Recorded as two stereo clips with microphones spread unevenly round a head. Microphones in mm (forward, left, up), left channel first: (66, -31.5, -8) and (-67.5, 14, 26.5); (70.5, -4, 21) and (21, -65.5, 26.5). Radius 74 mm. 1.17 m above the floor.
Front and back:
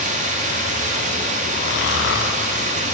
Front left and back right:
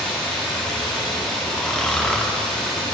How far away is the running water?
About 0.9 m.